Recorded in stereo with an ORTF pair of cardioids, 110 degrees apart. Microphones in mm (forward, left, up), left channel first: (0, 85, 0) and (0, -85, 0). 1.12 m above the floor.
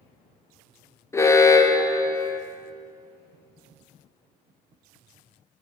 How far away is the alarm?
About 0.7 m.